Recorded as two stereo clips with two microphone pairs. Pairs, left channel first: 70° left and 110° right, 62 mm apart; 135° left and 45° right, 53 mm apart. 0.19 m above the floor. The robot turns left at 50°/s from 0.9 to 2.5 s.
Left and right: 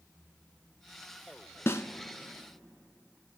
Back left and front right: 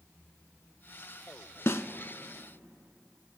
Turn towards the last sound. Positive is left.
turn(degrees=65)